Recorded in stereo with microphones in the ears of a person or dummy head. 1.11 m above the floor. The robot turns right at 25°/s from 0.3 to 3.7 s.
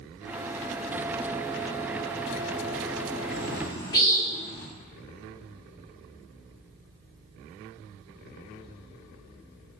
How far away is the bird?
About 1.2 m.